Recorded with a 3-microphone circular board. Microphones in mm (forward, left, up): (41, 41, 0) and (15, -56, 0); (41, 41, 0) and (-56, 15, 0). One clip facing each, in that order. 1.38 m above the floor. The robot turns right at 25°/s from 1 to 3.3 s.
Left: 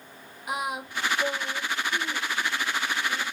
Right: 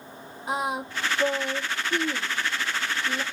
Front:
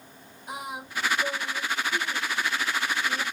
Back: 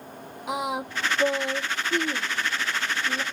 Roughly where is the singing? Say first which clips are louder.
Right 3 dB, back 8 dB; behind.